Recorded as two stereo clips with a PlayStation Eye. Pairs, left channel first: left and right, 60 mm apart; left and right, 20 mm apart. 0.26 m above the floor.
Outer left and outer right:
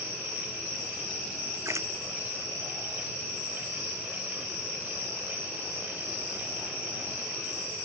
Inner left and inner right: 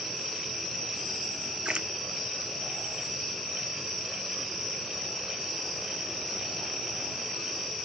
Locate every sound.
1.6 s a splash: 55° right (ahead or behind)